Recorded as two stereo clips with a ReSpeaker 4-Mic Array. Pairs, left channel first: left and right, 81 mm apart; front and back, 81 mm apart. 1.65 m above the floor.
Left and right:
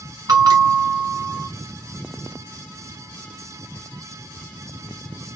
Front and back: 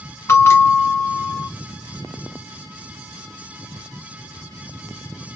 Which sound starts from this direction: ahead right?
A bell, at 0.3 s.